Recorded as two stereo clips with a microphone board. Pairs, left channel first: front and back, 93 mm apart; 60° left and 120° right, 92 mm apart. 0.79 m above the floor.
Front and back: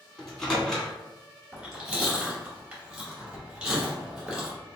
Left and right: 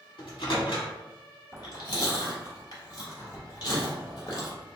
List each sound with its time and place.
0.2 s a microwave: 85° left, 1.1 m
1.5 s chewing: 105° left, 1.7 m